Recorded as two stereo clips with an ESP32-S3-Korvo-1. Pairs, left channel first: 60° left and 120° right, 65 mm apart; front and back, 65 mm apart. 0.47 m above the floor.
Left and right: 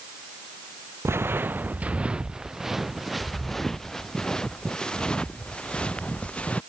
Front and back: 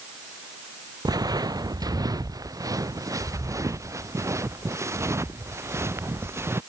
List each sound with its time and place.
1.1 s footsteps: 170° right; by 6.6 s 130° left